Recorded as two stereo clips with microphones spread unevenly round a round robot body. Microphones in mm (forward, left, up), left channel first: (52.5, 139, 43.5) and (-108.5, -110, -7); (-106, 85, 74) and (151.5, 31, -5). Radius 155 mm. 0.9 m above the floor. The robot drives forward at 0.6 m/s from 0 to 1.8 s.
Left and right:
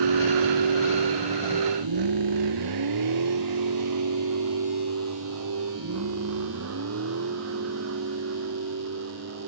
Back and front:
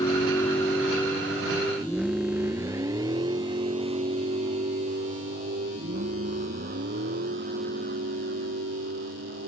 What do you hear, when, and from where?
0.0 s a vehicle: 120° right; by 9.5 s 70° right